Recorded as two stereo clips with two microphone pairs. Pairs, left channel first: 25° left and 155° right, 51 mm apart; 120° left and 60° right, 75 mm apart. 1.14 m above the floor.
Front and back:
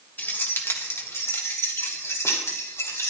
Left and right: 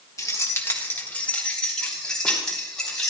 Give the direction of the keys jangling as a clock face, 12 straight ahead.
9 o'clock.